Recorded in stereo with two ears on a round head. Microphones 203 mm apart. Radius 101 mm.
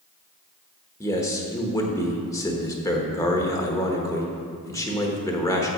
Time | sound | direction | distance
1.0 | a man speaking | 15° left (ahead or behind) | 1.1 m